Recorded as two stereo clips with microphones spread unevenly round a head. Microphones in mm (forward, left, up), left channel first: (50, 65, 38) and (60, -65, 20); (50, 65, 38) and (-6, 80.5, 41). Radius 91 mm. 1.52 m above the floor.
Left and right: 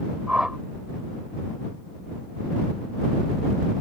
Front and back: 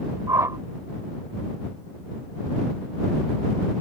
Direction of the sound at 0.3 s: Straight behind.